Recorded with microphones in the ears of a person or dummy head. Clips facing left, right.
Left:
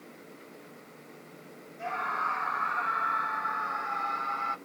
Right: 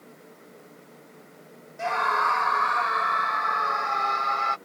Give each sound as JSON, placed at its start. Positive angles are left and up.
{"t": 1.8, "sound": "a scream", "side_deg": -75}